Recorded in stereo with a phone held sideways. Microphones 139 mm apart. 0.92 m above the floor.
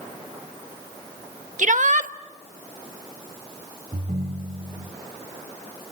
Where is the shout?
65° right (ahead or behind), 1.1 m.